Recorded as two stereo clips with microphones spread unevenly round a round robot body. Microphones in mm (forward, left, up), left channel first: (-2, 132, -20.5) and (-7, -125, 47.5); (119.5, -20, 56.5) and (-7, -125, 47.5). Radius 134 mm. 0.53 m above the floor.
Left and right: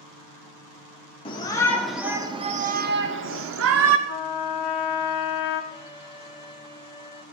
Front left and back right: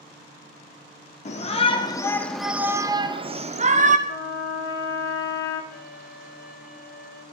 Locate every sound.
1.2 s a shout: 50° left, 1.3 m; by 4.0 s 125° right, 1.7 m
4.1 s a trumpet: 80° left, 1.4 m
5.7 s a violin: 25° left, 1.6 m